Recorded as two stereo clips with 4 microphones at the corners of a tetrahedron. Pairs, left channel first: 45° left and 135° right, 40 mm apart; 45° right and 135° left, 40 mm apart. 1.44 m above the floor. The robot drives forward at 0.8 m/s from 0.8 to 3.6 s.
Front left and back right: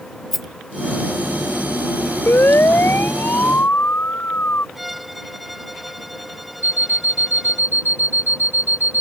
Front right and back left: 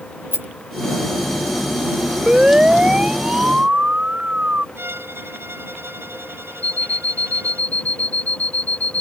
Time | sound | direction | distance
0.3 | a rattle | 130° left | ?
2.3 | a siren | 60° left | ?
4.8 | a violin | 135° left | ?
6.6 | an alarm clock | 100° right | ?